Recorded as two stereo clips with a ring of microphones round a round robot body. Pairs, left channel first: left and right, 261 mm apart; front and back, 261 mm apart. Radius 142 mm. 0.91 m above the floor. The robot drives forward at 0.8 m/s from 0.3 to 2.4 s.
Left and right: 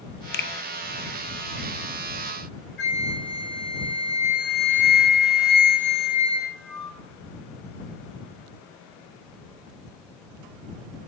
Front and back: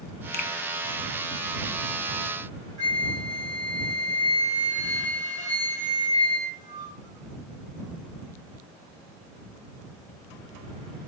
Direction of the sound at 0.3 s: 50° left.